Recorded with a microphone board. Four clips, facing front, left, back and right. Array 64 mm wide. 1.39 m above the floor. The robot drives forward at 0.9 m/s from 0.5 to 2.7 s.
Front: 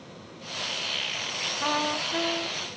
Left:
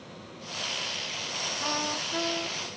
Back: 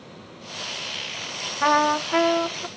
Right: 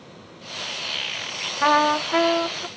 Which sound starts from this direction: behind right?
A trumpet, at 1.6 s.